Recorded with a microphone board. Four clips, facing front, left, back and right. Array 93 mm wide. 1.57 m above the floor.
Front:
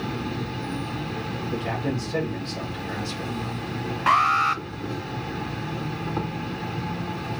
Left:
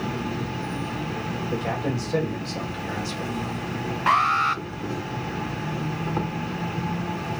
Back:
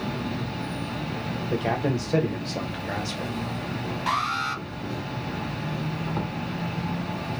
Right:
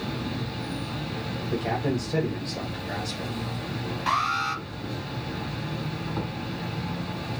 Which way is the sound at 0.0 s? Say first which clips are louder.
Left 3 dB, even; 90° left.